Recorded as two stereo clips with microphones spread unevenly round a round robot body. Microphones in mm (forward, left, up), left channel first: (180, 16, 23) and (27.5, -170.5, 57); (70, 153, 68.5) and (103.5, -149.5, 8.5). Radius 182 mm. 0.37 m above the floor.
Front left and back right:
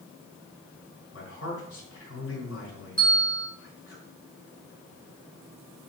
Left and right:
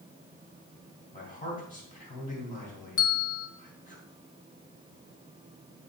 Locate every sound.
1.1 s a man speaking: 30° left, 4 m
3.0 s a bell: 125° left, 1.2 m